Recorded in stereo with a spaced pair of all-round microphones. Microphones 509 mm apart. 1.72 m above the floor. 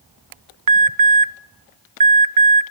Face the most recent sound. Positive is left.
turn(degrees=-45)  # may be behind; listen again after turning